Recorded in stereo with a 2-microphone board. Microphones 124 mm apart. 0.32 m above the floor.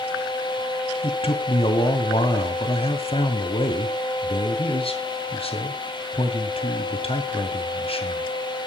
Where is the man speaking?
55° left (ahead or behind), 2.5 m.